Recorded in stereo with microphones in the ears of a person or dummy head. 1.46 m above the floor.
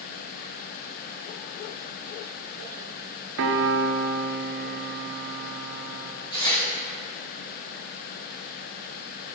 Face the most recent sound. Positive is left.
turn(degrees=25)  # may be behind; listen again after turning